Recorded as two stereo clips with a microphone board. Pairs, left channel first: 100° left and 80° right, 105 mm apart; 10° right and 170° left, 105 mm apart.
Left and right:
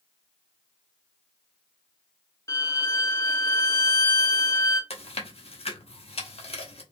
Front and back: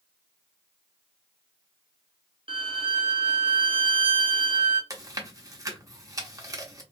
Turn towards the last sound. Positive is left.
turn(degrees=115)